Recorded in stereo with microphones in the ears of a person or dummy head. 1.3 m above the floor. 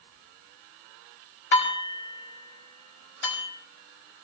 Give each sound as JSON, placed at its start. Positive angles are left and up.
{"t": 1.5, "sound": "dishes clattering", "side_deg": 70, "distance_m": 6.0}